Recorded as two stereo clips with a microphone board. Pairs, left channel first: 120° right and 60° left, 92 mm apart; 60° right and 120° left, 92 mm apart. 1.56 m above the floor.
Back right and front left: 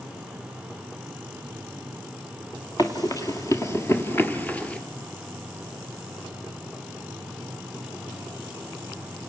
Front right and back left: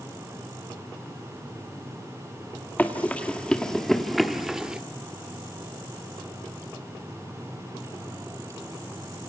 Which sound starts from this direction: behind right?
Running footsteps, at 2.8 s.